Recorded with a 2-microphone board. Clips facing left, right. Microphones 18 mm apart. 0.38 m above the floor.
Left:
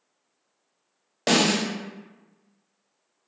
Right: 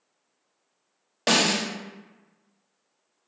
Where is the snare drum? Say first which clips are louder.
Left 1 dB; 5° right (ahead or behind), 0.7 m.